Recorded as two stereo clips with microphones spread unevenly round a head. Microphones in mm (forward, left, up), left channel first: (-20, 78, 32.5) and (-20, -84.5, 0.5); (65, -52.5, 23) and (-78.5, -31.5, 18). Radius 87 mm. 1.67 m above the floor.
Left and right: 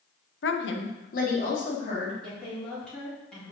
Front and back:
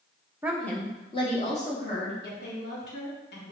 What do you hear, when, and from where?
0.4 s a woman speaking: 95° left, 1.0 m; by 2.1 s 40° left, 3 m
2.2 s a woman speaking: 5° left, 4 m